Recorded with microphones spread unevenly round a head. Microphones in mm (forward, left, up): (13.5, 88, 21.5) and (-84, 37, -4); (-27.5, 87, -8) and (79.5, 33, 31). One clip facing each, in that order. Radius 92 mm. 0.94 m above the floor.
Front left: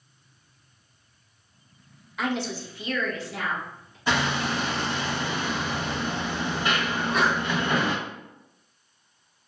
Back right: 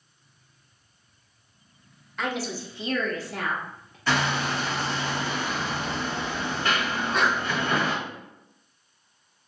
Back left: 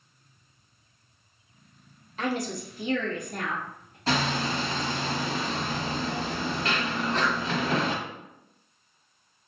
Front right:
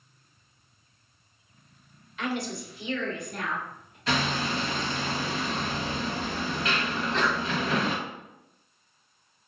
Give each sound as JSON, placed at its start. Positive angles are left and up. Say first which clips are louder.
{"t": 2.2, "sound": "a woman speaking", "louder": "front left 2 dB, back left 2 dB", "azimuth_deg": 120, "distance_m": 0.9}
{"t": 4.1, "sound": "hammering", "louder": "even, back left 1 dB", "azimuth_deg": 105, "distance_m": 1.3}
{"t": 6.9, "sound": "a sneeze", "louder": "front left 2 dB, even", "azimuth_deg": 120, "distance_m": 1.9}